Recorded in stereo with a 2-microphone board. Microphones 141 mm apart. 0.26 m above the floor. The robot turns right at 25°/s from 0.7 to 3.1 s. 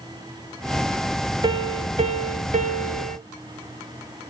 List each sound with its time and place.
1.4 s a piano: 145° right, 0.7 m; by 3.2 s 105° right, 0.7 m